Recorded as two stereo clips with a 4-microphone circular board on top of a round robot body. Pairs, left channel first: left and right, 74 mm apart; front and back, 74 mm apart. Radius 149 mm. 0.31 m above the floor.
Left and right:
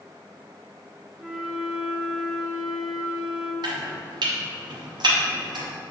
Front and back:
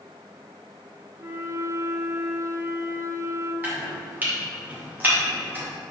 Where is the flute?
165° right, 0.7 m.